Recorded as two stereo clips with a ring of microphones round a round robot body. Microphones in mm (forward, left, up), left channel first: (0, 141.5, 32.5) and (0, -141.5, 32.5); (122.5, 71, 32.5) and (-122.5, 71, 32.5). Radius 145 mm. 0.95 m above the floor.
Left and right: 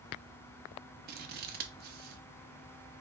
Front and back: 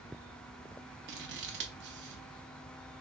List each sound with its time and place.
1.1 s scissors: 140° right, 0.5 m